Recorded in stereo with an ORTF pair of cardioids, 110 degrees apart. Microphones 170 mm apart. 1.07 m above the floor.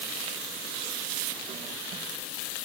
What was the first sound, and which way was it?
Only background noise.